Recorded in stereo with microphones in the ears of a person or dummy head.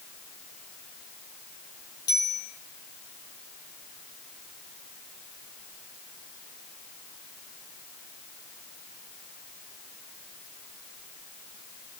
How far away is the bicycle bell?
About 7.5 m.